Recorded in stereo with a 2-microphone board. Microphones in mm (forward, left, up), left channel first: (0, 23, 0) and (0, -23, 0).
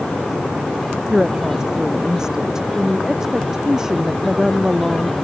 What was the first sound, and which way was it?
A woman speaking, 10° right (ahead or behind).